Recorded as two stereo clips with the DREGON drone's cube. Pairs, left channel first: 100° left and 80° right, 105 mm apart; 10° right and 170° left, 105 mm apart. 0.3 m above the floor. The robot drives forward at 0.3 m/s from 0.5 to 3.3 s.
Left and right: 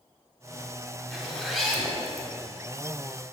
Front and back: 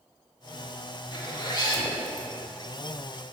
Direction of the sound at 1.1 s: 5° left.